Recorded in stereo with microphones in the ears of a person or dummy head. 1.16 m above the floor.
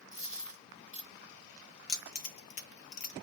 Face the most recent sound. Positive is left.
turn(degrees=40)  # may be behind; listen again after turning